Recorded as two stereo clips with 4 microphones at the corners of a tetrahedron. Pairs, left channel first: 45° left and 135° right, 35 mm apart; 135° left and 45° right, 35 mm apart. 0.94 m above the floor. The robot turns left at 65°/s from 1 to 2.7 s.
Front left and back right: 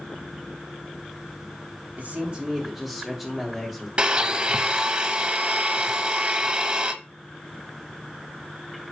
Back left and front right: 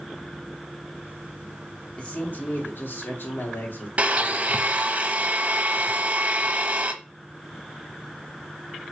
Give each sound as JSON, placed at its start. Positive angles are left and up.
{"t": 2.0, "sound": "a man speaking", "azimuth_deg": -175, "distance_m": 2.5}
{"t": 4.0, "sound": "a blender", "azimuth_deg": -85, "distance_m": 0.9}